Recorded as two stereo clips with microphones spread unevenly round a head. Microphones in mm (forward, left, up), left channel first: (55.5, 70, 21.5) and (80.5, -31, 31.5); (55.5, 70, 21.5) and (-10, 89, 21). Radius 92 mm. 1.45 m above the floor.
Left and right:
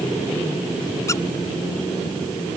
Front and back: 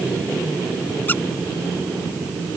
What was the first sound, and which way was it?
A squeak, 45° left.